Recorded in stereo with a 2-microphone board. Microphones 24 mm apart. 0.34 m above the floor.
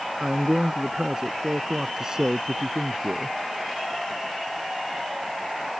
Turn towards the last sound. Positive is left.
turn(degrees=-35)  # may be behind; listen again after turning